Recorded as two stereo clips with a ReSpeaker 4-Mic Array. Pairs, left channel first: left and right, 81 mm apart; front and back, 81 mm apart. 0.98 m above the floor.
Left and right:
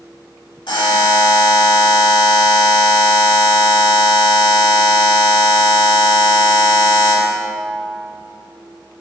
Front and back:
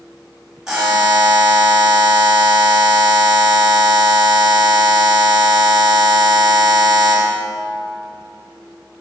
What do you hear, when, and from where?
0.7 s a buzzer: 95° left, 2 m